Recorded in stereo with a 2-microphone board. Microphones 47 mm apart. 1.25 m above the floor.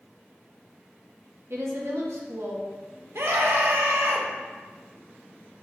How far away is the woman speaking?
About 1.7 m.